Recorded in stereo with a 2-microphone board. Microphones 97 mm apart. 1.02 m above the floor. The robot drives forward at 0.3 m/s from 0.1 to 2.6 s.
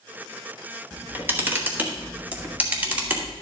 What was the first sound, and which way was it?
A camera shutter, 25° right (ahead or behind).